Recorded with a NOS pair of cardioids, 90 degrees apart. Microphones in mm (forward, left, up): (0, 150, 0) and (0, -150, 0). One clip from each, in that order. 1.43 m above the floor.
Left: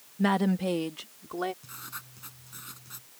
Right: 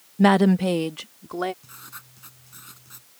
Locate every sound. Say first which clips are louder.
0.2 s a woman speaking: right 9 dB; 55° right; by 1.5 s 30° right
1.6 s writing: left 1 dB; 5° left